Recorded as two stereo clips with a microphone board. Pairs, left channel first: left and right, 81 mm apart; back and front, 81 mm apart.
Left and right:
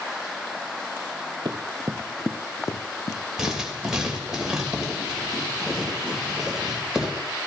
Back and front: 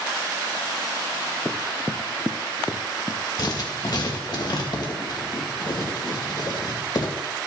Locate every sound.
1.4 s running footsteps: 100° right, 0.9 m; by 4.4 s 95° left, 2.5 m
3.4 s writing: 170° right, 2.5 m